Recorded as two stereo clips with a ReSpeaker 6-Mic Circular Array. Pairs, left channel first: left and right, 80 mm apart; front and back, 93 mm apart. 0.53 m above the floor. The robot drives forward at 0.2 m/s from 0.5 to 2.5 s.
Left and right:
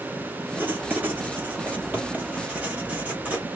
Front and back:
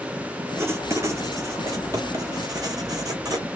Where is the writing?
140° right, 1.0 m; by 3.5 s 155° right, 1.2 m.